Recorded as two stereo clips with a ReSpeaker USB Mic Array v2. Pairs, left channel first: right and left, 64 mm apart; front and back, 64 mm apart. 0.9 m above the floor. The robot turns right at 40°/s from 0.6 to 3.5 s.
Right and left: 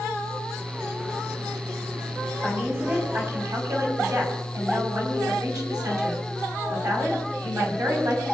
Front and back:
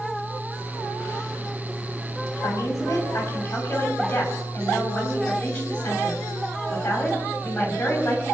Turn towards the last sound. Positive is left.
turn(degrees=65)